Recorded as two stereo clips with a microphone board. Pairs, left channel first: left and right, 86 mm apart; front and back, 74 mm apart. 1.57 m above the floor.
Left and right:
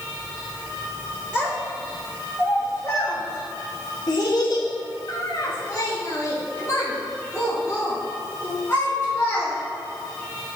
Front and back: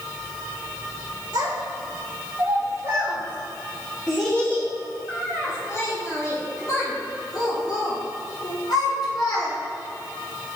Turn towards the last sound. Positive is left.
turn(degrees=25)